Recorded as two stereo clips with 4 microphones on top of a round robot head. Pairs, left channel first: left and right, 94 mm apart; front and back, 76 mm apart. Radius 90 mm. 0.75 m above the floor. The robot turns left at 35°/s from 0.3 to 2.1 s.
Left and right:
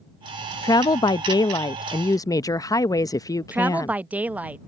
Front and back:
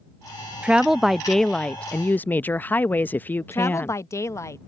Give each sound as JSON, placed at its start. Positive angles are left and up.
{"t": 0.6, "sound": "a woman speaking", "azimuth_deg": 110}
{"t": 3.5, "sound": "a woman speaking", "azimuth_deg": -25}